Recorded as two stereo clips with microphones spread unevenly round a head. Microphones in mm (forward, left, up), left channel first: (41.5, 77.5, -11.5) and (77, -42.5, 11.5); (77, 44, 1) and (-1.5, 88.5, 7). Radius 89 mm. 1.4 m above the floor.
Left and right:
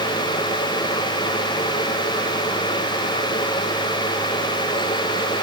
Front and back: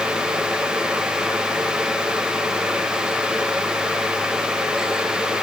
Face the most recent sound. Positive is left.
No sound to turn to.